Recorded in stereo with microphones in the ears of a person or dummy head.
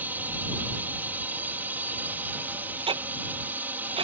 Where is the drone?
10° right (ahead or behind).